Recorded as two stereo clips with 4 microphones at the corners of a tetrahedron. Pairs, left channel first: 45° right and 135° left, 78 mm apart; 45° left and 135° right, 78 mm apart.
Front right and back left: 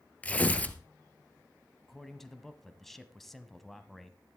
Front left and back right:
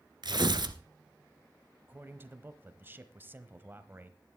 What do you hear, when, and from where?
0.2 s tearing paper: 115° right, 1.0 m
1.9 s a man speaking: 130° right, 1.1 m